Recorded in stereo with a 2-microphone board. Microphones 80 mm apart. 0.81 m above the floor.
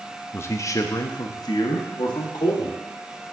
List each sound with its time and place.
0.3 s a man speaking: 30° left (ahead or behind), 0.5 m; by 2.8 s 75° left (ahead or behind), 1.6 m